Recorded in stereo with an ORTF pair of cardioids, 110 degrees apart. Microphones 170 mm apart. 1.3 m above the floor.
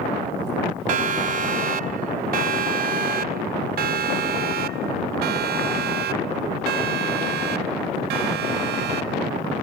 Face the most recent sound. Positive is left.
turn(degrees=-75)